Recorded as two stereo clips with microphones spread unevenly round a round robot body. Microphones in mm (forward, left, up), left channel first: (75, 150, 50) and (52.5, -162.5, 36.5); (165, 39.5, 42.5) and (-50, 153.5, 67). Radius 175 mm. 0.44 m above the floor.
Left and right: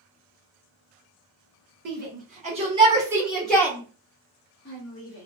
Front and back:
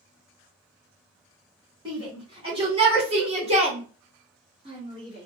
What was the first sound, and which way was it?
A shout, 140° right.